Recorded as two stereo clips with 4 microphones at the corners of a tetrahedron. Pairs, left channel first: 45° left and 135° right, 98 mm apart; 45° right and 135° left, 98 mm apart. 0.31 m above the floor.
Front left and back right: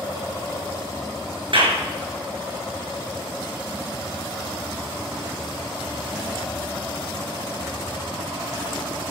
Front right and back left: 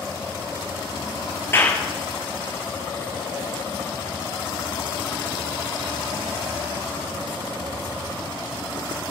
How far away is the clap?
About 4.5 m.